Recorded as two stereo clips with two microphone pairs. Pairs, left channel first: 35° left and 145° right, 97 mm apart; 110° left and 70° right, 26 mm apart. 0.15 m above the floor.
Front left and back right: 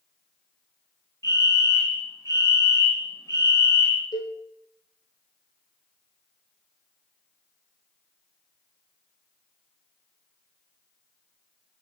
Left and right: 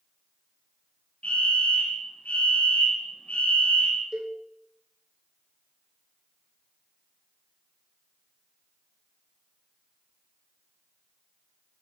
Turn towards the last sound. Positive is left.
turn(degrees=-10)